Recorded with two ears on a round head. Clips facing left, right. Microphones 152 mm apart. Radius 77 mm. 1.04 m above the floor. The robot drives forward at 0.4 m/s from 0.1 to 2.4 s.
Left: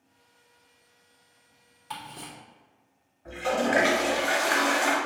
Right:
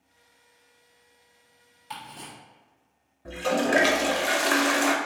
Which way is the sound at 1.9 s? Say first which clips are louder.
Left 1 dB; centre (ahead or behind).